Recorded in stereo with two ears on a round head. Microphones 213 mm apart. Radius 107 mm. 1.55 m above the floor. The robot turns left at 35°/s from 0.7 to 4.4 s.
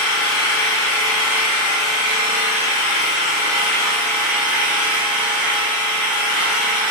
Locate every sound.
0.0 s an engine running: 125° left, 1.6 m; by 6.9 s 5° right, 1.6 m